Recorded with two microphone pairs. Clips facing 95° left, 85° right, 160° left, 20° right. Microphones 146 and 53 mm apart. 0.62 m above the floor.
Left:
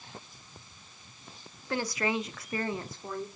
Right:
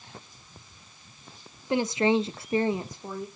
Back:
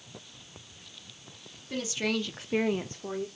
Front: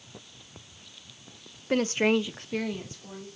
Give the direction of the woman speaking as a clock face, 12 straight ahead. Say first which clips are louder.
Right 7 dB, front 7 dB; 1 o'clock.